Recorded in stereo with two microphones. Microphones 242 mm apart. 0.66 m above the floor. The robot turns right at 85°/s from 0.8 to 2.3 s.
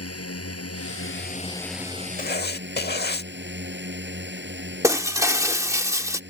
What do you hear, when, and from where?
0.0 s a drone: 100° left; by 6.3 s 130° right
2.2 s writing: 35° left (ahead or behind); by 3.3 s 45° left (ahead or behind)
4.8 s breaking glass: 10° right (ahead or behind)